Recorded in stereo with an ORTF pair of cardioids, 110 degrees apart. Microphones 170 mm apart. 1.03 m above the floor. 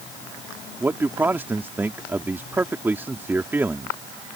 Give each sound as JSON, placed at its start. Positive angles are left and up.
{"t": 0.8, "sound": "a man speaking", "azimuth_deg": -15}